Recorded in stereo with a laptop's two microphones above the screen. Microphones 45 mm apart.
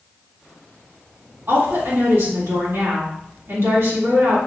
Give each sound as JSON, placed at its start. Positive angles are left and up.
{"t": 1.5, "sound": "a woman speaking", "side_deg": -60, "distance_m": 2.0}